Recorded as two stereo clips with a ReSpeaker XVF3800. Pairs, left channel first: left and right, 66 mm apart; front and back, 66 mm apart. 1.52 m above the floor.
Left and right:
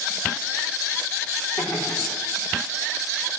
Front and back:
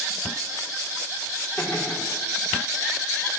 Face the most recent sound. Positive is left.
turn(degrees=75)